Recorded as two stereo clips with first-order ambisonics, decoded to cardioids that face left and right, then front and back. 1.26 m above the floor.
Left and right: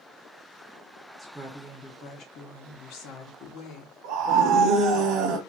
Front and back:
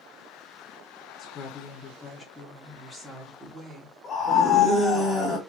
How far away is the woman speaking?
About 0.6 m.